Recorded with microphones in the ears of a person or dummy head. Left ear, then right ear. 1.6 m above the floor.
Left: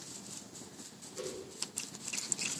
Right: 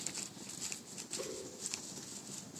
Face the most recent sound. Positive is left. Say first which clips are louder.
# left 2 dB
turn(degrees=75)  # may be behind; listen again after turning